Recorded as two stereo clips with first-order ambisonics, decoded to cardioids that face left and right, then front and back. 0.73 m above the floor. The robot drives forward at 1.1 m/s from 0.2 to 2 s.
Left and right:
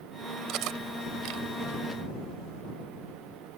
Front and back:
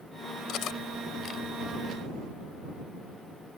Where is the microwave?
I don't hear a microwave.